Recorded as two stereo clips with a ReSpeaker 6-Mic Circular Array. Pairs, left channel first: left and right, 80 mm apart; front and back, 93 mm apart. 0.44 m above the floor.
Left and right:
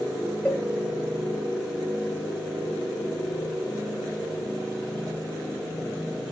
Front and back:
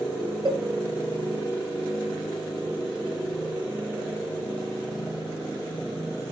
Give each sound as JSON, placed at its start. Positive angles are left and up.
{"t": 0.5, "sound": "a cowbell", "azimuth_deg": 170, "distance_m": 1.5}